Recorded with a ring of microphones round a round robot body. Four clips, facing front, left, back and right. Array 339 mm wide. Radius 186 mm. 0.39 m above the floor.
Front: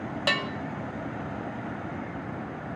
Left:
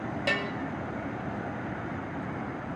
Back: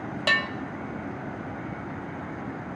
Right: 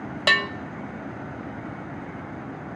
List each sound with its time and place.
0.3 s a bell: 90° right, 0.5 m